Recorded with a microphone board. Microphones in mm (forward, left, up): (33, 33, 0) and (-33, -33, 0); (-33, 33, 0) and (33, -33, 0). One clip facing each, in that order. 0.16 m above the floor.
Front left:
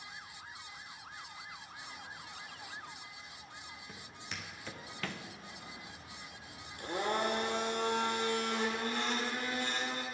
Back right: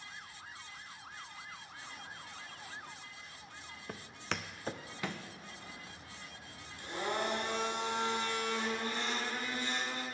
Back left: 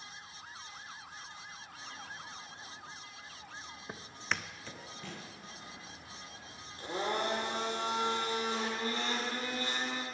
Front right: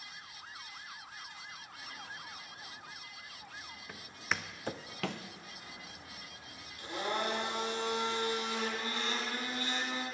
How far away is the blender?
About 2 m.